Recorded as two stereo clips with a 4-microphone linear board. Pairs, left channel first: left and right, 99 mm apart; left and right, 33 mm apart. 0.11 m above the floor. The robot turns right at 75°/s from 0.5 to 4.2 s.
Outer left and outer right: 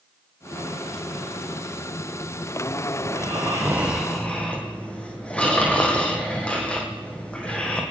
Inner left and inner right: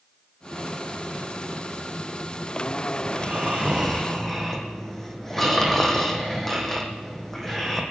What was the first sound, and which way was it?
Snoring, 75° right.